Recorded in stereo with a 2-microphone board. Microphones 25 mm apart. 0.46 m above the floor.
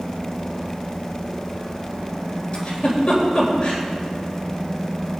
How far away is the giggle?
About 3.5 m.